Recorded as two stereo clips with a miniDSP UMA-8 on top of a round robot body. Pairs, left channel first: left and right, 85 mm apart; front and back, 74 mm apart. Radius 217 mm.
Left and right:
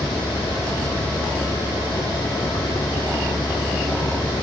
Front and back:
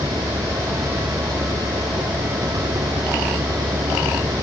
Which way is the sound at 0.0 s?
140° left.